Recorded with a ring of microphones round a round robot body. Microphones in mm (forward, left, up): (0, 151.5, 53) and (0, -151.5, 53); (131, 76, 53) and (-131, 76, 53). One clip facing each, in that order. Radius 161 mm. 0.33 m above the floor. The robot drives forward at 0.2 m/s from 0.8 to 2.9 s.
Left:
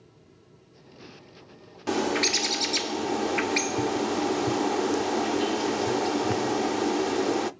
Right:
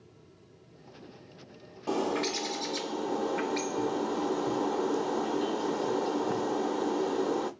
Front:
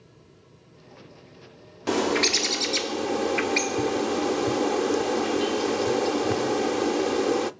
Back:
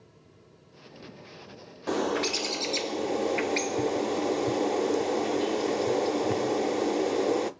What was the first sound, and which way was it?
A bird, 45° left.